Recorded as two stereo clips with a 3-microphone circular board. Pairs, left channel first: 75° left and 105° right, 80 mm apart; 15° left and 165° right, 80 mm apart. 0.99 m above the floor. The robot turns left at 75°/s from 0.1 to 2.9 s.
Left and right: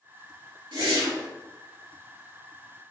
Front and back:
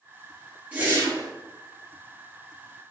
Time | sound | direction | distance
0.7 | a whoosh | 95° right | 1.8 m